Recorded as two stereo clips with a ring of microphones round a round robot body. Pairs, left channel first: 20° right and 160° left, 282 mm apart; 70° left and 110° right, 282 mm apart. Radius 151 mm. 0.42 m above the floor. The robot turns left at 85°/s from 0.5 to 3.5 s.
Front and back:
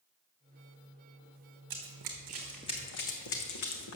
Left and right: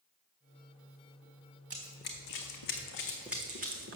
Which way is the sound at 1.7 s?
165° left.